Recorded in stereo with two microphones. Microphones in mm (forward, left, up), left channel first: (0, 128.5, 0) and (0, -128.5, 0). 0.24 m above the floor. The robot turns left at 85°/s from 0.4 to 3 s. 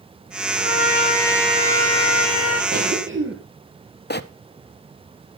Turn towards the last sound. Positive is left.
turn(degrees=45)  # may be behind; listen again after turning